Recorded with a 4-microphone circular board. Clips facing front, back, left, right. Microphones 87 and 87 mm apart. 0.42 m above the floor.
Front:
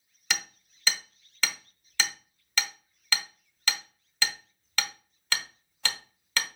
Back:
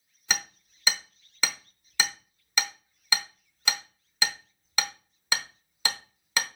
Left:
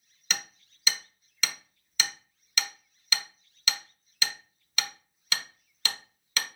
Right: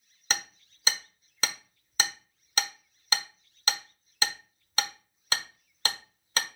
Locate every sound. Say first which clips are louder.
0.3 s hammering: back 2 dB, right 3 dB; 110° right, 0.9 m